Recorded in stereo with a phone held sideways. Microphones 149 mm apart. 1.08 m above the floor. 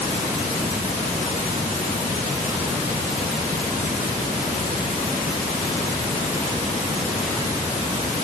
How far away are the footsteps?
I don't hear footsteps.